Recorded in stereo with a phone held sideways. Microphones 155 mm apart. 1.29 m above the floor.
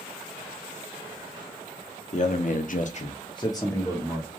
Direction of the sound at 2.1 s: 50° left (ahead or behind).